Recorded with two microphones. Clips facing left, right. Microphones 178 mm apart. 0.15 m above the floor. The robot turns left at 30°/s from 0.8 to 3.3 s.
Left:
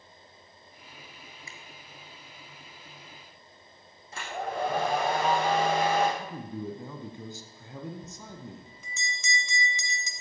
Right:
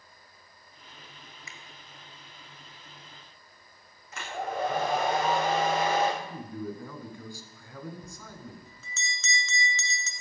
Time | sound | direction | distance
1.5 | a finger snap | 30° left (ahead or behind) | 1.2 m
4.1 | a hair dryer | 30° left (ahead or behind) | 6 m
6.2 | a man speaking | 20° left (ahead or behind) | 1.6 m
8.0 | a bell | 15° left (ahead or behind) | 1.3 m